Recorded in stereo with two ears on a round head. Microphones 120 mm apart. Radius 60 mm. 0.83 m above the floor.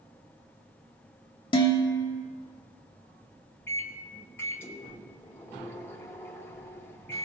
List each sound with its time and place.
1.5 s dishes clattering: 40° left (ahead or behind), 1.0 m
3.7 s a microwave: 15° left (ahead or behind), 0.6 m